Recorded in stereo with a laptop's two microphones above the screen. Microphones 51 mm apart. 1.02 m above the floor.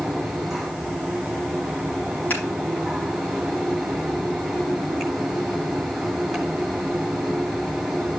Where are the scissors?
35° left (ahead or behind), 5.5 m.